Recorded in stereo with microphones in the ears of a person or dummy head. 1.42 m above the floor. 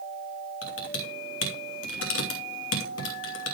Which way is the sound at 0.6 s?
80° left.